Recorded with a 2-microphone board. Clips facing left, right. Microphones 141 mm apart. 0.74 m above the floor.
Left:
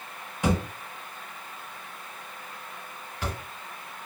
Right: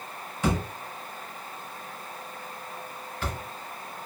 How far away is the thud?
About 1.2 m.